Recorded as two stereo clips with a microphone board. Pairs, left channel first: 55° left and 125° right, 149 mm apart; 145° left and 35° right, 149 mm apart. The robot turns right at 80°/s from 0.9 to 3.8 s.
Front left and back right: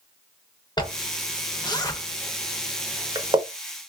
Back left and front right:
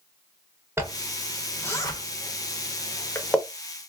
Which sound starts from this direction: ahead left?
A zipper, at 0.8 s.